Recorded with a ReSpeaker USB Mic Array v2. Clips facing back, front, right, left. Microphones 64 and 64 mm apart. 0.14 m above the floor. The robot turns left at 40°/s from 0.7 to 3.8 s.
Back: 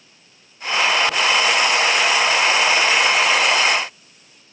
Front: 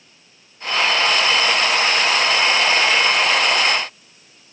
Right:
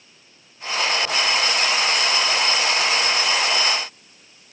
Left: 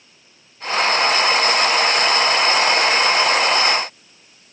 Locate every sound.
Only background noise.